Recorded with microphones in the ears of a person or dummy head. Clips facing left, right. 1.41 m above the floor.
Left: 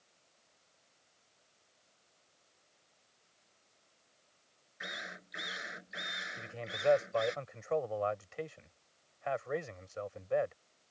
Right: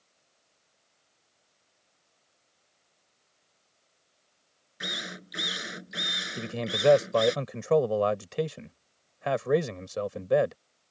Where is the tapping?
No tapping in this recording.